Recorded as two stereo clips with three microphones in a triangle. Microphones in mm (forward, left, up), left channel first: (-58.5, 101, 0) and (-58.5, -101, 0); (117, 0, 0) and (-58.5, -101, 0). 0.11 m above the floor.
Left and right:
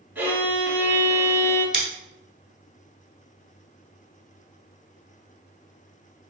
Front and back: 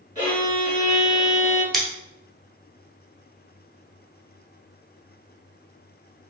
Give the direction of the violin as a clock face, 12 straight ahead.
5 o'clock.